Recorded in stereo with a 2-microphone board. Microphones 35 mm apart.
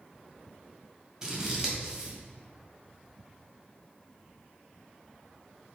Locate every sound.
1.2 s scissors: 15° right (ahead or behind), 1.9 m